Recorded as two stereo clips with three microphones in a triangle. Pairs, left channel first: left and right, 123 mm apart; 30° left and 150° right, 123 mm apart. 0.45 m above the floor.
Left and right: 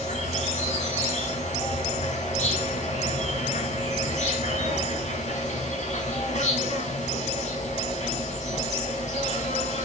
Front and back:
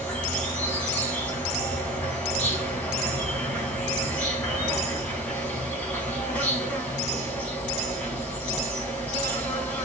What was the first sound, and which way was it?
An insect, 110° left.